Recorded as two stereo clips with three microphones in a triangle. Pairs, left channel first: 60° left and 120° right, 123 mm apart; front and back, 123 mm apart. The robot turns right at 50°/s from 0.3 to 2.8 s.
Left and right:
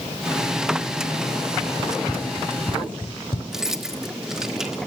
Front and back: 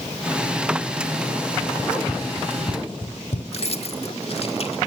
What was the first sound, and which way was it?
Running footsteps, 55° right.